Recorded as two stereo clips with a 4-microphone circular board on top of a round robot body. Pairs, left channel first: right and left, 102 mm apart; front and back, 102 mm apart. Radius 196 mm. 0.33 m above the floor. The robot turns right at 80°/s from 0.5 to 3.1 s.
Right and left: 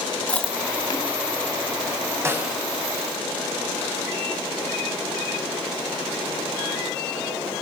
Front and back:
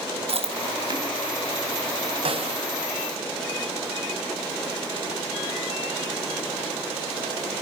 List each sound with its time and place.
0.3 s chewing: 170° right, 4 m; by 1.1 s 120° right, 4 m
2.2 s a snare drum: 155° left, 4.5 m; by 2.6 s 175° right, 4.5 m